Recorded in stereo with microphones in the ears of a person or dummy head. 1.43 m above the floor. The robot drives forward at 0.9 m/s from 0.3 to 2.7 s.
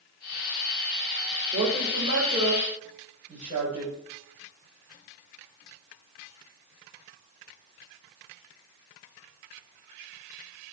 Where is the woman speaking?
40° right (ahead or behind), 5.5 m; by 3.9 s 35° right (ahead or behind), 6.5 m.